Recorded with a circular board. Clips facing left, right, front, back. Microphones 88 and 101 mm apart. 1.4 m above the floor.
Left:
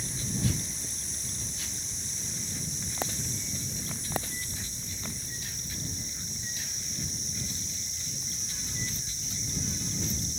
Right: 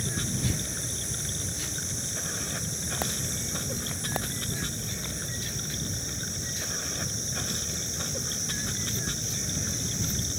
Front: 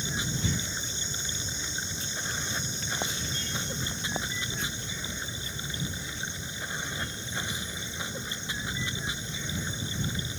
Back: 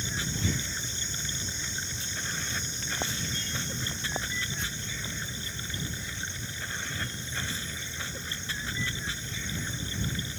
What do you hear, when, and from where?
0.0 s running water: 75° right